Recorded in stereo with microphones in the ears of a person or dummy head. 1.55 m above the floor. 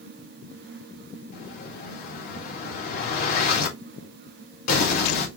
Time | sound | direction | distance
1.3 | an explosion | 55° left (ahead or behind) | 1.6 m